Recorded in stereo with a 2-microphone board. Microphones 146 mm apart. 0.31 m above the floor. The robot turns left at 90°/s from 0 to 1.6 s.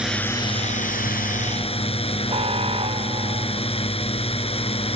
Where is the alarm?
45° right (ahead or behind).